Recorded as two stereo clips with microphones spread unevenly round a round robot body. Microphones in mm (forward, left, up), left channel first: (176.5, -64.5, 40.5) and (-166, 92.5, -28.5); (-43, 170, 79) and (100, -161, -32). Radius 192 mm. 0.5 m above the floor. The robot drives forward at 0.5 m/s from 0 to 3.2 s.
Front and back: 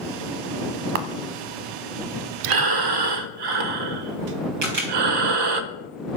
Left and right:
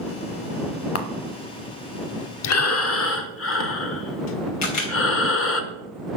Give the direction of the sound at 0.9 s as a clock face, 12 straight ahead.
6 o'clock.